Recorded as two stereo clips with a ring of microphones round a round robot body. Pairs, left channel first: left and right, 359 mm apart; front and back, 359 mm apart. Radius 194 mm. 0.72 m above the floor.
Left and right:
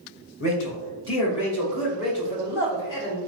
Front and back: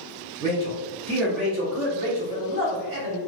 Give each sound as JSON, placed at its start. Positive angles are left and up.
{"t": 0.4, "sound": "a man speaking", "azimuth_deg": 70, "distance_m": 2.0}